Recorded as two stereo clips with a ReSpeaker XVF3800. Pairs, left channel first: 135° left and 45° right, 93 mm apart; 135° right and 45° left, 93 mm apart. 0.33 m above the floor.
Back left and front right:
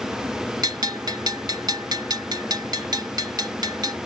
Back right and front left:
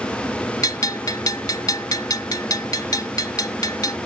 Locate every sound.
0.6 s a bell: 85° right